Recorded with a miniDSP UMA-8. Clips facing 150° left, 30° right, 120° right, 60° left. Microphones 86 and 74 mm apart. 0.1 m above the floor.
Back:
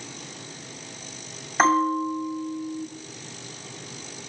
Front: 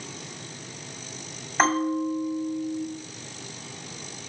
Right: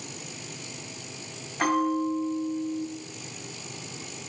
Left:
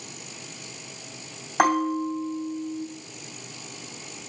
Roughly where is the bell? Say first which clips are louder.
Back 3 dB, left 3 dB; ahead left.